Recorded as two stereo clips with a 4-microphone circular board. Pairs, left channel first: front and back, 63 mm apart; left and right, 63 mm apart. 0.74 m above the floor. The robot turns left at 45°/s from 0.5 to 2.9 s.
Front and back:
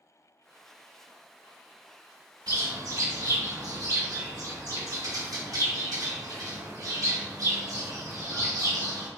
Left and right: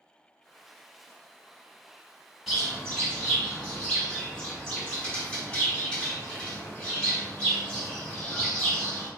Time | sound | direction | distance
2.5 | a bird | 175° right | 1.9 m